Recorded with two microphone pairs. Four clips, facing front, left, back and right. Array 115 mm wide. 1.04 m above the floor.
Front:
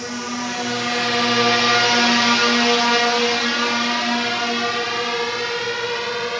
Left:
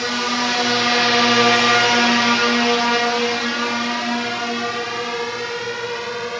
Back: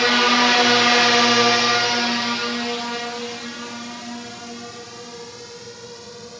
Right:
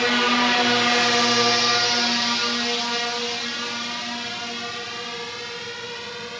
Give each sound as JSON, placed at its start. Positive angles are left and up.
{"t": 0.0, "sound": "a drone", "azimuth_deg": -170}